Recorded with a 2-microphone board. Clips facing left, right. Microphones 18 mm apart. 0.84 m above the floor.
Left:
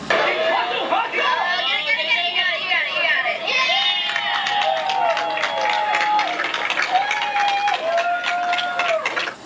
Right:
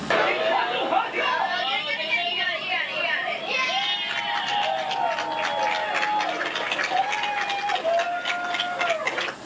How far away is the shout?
About 3.5 m.